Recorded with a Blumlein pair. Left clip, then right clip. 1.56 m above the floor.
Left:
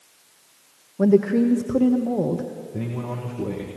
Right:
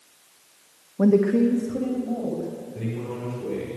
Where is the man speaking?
35° left, 1.9 m.